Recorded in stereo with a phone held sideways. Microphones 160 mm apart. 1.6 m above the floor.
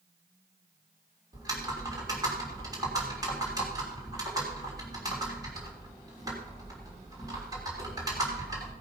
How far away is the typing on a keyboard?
About 3 m.